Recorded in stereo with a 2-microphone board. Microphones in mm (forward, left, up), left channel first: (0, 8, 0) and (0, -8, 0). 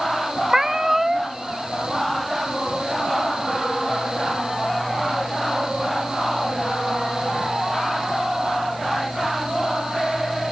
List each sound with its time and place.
0.5 s a cat meowing: 25° right (ahead or behind), 0.7 m